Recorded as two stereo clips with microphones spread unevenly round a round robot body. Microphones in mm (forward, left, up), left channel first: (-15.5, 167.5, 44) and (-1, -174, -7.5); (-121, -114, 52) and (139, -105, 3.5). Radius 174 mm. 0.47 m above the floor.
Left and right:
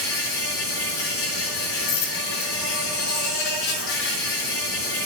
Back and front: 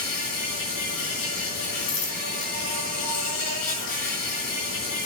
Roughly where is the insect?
Left.